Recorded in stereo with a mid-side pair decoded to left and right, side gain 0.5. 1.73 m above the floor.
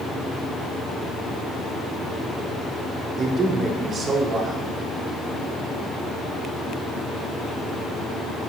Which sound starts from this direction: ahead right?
A man speaking, at 3.2 s.